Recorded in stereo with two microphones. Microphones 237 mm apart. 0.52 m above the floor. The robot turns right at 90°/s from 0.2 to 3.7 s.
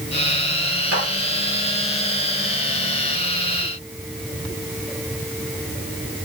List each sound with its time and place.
0.9 s a clap: 80° right, 6.5 m; by 1.1 s 70° right (ahead or behind), 6.5 m